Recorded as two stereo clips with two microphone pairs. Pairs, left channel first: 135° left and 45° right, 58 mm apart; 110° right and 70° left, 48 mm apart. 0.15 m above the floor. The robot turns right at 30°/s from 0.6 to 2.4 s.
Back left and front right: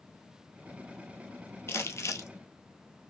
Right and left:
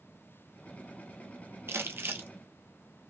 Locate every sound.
1.7 s crumpling: 95° left, 0.9 m; by 2.3 s 110° left, 0.9 m